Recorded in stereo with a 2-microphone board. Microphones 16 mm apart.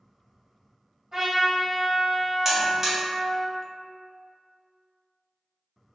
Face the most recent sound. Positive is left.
turn(degrees=-30)  # may be behind; listen again after turning